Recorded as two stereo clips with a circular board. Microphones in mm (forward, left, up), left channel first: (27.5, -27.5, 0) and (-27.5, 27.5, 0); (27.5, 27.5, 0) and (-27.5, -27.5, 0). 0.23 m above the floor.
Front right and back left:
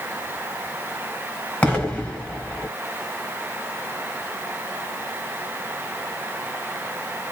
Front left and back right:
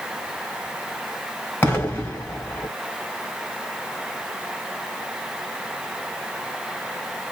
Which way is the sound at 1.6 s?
10° left.